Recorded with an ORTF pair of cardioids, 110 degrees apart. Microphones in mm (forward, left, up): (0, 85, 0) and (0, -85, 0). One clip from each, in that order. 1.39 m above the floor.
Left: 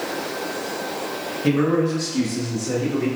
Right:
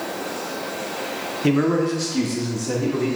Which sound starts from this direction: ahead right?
A man speaking, at 1.4 s.